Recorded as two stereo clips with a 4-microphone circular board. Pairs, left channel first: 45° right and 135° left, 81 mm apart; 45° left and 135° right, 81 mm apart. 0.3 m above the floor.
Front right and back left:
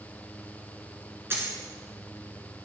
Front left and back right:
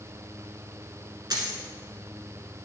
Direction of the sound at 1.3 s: 165° right.